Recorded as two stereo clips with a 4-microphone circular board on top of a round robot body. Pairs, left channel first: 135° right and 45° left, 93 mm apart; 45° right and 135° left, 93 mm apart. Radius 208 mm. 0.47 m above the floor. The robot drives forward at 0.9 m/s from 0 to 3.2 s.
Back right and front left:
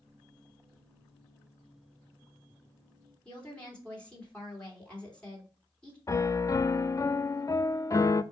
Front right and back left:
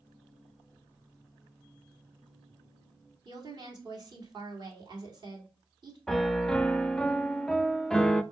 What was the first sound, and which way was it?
A woman speaking, 150° left.